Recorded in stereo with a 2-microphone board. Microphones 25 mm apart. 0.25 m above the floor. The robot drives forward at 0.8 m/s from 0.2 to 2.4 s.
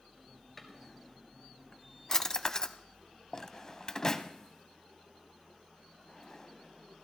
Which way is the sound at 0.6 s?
5° left (ahead or behind).